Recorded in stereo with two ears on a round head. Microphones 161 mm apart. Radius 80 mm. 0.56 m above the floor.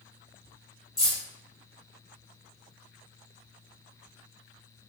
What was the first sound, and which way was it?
Keys jangling, 20° left (ahead or behind).